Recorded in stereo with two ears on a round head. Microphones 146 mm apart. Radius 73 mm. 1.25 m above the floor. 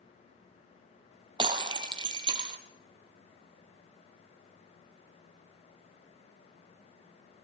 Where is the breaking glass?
30° right (ahead or behind), 1.4 m.